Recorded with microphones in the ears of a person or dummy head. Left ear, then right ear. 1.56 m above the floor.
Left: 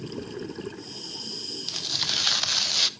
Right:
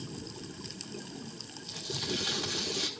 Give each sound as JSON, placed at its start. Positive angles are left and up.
{"t": 1.7, "sound": "tearing paper", "side_deg": 75, "distance_m": 0.9}